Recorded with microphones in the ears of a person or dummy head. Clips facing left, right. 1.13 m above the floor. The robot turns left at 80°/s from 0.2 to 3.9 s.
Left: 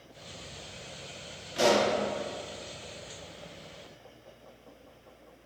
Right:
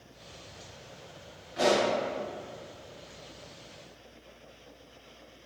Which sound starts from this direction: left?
A pop, at 1.6 s.